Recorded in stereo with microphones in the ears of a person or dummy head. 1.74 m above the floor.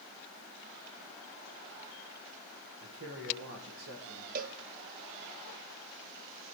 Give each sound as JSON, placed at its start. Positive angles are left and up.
{"t": 2.8, "sound": "a man speaking", "side_deg": -65, "distance_m": 1.9}
{"t": 4.3, "sound": "a cowbell", "side_deg": -50, "distance_m": 0.7}